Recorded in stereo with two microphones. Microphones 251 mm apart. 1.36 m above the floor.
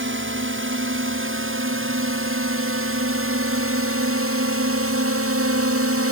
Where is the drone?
50° right (ahead or behind); by 6.1 s 65° right (ahead or behind).